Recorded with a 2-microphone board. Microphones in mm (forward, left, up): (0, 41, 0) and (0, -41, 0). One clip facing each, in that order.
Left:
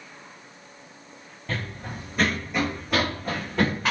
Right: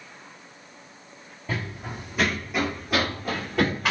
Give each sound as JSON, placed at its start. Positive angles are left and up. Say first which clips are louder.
{"t": 1.5, "sound": "running footsteps", "louder": "right 1 dB", "side_deg": -10, "distance_m": 0.7}